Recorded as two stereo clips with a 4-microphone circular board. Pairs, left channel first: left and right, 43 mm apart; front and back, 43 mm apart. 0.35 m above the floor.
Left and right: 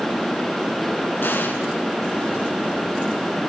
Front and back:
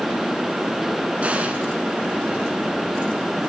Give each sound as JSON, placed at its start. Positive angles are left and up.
{"t": 1.2, "sound": "an explosion", "azimuth_deg": 125, "distance_m": 1.8}